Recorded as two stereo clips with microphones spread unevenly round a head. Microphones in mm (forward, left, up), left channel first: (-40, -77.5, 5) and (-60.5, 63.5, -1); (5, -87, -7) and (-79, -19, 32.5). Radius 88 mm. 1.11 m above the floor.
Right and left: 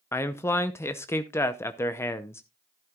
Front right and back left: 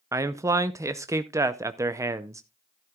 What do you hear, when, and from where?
0.1 s a man speaking: 145° right, 0.6 m